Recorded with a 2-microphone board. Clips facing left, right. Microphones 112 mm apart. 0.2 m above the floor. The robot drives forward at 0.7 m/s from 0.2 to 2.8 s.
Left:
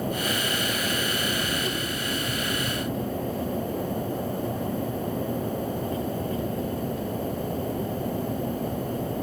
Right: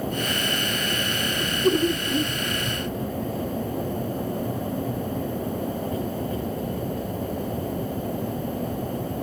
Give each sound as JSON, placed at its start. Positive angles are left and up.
{"t": 1.4, "sound": "laughter", "side_deg": -50}